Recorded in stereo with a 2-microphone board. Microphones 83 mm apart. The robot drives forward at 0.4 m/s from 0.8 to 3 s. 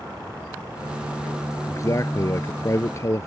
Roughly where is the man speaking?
Left.